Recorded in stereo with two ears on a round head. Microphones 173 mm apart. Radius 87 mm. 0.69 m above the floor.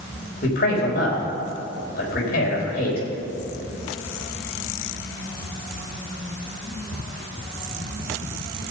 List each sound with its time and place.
0.4 s a man speaking: 50° left (ahead or behind), 3.5 m